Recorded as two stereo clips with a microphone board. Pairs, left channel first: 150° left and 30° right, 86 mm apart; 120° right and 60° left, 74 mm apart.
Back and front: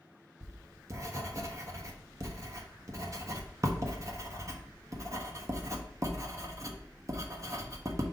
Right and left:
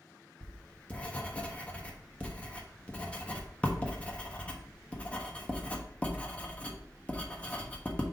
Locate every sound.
0.4 s writing: 55° right, 1.2 m